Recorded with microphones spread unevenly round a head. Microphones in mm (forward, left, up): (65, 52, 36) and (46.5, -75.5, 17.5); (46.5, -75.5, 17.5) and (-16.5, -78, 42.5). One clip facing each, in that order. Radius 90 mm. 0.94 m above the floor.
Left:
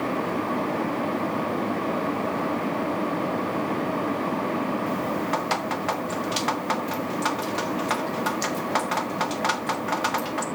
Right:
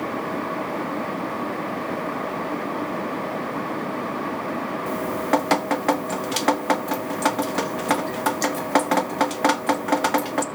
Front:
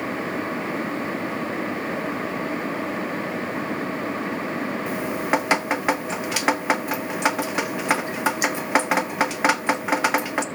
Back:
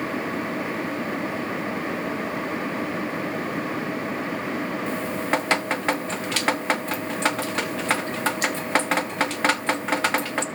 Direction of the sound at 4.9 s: 70° right.